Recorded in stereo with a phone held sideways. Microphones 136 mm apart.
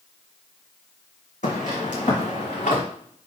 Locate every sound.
1.4 s footsteps: 65° left (ahead or behind), 3.5 m; by 2.8 s 70° left (ahead or behind), 4 m